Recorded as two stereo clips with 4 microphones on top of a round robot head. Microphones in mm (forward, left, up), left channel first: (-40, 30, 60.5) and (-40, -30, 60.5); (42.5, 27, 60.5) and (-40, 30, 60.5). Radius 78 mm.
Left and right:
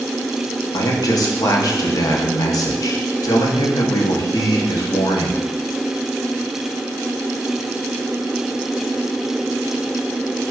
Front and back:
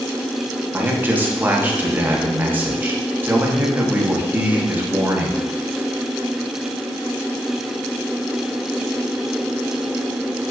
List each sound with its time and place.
0.7 s a man speaking: 110° left, 0.7 m